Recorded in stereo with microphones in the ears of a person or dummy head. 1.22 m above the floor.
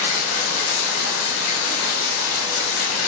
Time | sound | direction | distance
0.0 | running water | 80° left | 3 m